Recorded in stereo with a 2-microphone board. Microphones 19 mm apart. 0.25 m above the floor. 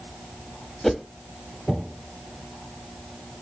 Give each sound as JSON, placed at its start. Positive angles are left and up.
{"t": 0.8, "sound": "a whoosh", "side_deg": 5, "distance_m": 0.7}